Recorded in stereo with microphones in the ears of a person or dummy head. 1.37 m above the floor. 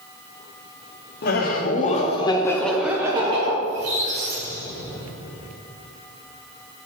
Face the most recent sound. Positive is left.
turn(degrees=-55)  # may be behind; listen again after turning